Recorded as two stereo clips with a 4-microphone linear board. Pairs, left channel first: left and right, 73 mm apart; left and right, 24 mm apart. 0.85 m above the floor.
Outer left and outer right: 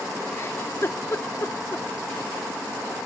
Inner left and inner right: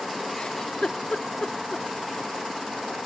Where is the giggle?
40° left (ahead or behind), 1.1 m.